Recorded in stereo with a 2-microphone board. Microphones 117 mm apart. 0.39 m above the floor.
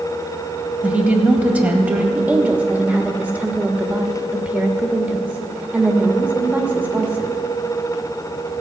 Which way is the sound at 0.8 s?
15° right (ahead or behind).